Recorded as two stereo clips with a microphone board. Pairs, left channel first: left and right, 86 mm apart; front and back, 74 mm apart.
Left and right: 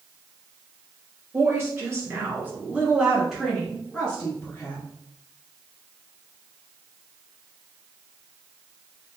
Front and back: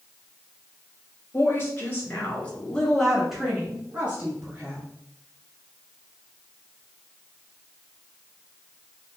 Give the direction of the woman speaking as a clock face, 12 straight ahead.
1 o'clock.